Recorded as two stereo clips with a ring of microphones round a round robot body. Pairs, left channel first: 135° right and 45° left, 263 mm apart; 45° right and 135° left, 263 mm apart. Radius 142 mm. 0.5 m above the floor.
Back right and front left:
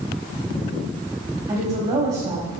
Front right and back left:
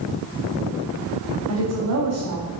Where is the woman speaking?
120° left, 3 m.